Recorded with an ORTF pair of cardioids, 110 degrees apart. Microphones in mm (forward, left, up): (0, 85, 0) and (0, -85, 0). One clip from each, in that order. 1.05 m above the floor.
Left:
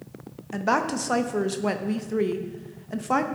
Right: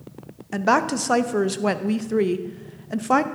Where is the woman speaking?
20° right, 0.6 m.